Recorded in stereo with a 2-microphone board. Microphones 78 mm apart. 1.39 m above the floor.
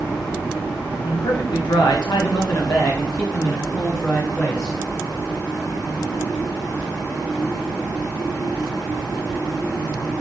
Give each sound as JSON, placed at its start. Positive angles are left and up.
{"t": 1.0, "sound": "a man speaking", "side_deg": 90, "distance_m": 1.3}